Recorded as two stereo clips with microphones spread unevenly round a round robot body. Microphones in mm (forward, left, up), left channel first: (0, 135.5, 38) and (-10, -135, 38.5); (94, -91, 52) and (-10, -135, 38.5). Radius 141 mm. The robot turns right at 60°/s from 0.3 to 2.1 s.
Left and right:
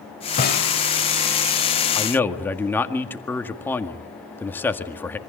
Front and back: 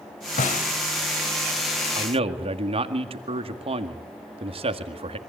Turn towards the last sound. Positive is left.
turn(degrees=170)